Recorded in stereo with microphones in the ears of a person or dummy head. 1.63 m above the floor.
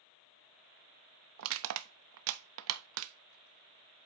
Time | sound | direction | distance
1.4 | crushing | 65° right (ahead or behind) | 0.6 m